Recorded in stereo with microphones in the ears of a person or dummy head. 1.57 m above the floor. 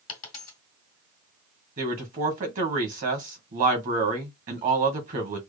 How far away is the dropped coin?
About 2.0 m.